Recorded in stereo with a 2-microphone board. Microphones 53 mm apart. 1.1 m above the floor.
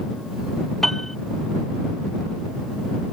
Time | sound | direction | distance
0.8 | a piano | 5° left (ahead or behind) | ?